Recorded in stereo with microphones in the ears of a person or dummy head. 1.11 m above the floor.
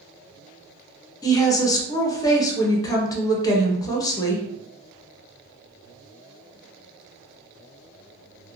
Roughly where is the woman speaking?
Centre.